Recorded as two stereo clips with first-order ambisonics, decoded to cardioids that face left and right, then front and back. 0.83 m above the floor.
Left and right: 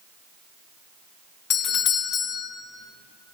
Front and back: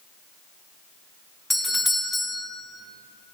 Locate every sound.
1.5 s a doorbell: 80° left, 0.9 m